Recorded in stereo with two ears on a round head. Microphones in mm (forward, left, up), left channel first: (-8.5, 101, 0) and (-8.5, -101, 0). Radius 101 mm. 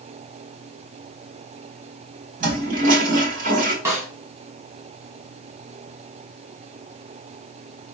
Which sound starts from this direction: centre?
A snare drum, at 3.9 s.